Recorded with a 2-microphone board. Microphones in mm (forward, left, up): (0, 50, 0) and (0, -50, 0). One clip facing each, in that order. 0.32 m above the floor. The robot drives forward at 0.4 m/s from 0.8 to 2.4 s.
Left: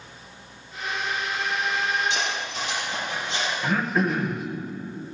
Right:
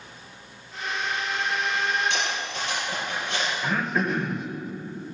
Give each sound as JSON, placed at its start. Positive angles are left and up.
{"t": 2.1, "sound": "cutlery clinking", "side_deg": -60, "distance_m": 4.5}
{"t": 3.6, "sound": "throat clearing", "side_deg": 0, "distance_m": 0.9}